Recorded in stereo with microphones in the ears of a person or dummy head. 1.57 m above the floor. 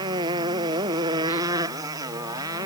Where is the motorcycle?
20° right (ahead or behind); by 2.7 s 15° right (ahead or behind).